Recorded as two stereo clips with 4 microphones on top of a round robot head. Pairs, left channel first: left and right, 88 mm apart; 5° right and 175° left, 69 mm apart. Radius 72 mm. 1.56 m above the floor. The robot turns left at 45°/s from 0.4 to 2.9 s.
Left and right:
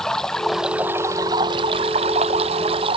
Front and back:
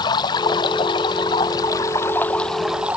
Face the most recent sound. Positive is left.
turn(degrees=-105)